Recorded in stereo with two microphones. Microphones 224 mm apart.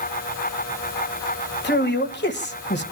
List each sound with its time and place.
1.6 s a man speaking: 50° left (ahead or behind), 1.7 m